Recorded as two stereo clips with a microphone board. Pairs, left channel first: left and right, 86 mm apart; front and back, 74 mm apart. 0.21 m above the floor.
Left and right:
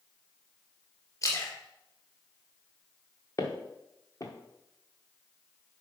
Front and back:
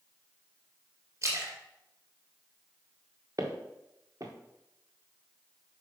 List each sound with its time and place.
1.2 s a splash: 130° left, 1.9 m
3.4 s footsteps: 140° left, 1.6 m